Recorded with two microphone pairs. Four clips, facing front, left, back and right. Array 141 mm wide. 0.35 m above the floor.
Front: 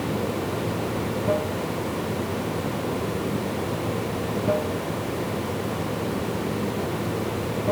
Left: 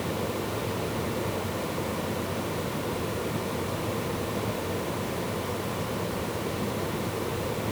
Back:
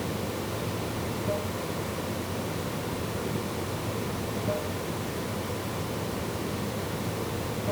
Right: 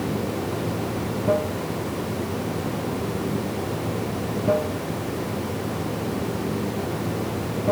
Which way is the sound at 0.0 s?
70° right.